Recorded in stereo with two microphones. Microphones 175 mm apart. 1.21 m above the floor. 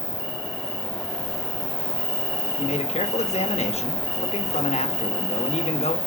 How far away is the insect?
About 1.8 m.